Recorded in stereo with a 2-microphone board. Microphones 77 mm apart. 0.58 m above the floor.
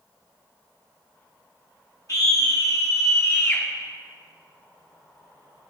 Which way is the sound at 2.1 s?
55° left (ahead or behind).